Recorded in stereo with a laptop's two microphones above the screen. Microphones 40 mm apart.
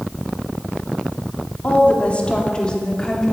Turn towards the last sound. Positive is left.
turn(degrees=15)  # may be behind; listen again after turning